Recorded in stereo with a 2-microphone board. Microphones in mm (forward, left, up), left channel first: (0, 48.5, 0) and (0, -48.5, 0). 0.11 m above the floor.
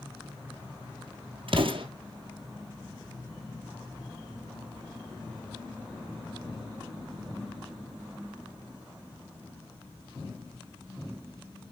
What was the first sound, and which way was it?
An explosion, 65° right (ahead or behind).